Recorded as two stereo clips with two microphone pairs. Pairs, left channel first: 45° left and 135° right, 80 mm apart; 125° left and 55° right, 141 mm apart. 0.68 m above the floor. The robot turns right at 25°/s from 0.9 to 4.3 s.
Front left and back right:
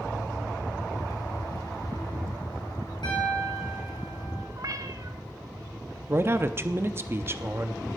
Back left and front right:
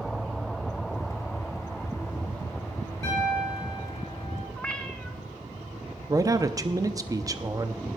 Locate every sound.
3.0 s a piano: 50° left, 6.5 m; by 4.5 s 85° left, 6.5 m
4.6 s a cat meowing: 155° right, 0.8 m
6.1 s a man speaking: 100° right, 0.7 m